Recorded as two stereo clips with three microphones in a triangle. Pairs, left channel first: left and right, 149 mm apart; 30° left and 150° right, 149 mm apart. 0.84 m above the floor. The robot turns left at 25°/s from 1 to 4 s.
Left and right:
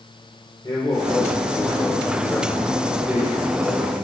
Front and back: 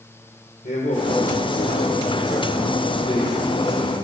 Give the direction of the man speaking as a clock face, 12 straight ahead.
11 o'clock.